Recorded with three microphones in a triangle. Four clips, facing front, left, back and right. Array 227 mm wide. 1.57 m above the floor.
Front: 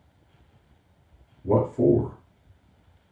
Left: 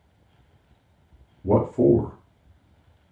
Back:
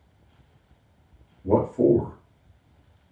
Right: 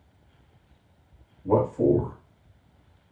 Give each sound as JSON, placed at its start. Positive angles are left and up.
{"t": 1.4, "sound": "a man speaking", "azimuth_deg": 85, "distance_m": 1.2}